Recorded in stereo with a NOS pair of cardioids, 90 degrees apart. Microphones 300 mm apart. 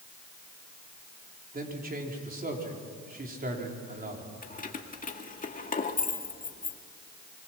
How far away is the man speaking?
About 4.5 m.